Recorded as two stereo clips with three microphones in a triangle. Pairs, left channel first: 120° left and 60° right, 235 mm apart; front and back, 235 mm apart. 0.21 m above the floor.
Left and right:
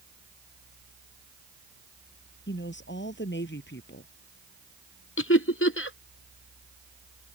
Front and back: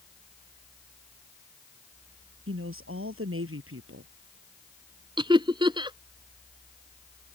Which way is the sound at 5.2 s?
110° left.